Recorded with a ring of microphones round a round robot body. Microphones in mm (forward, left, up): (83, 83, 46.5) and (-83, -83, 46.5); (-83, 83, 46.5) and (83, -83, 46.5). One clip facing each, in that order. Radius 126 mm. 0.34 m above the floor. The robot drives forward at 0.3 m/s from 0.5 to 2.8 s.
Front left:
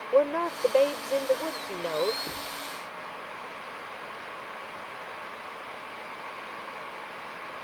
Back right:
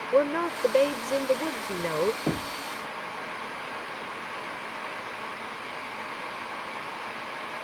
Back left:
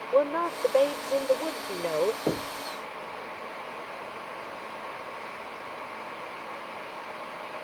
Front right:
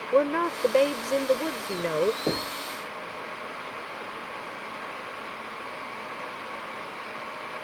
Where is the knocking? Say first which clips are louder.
Back right 11 dB, even; 135° right.